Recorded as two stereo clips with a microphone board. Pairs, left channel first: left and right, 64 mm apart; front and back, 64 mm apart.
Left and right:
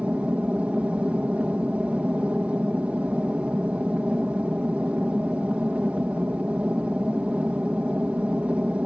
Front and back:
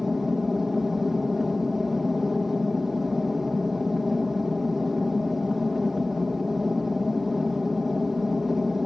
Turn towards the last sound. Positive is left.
turn(degrees=-100)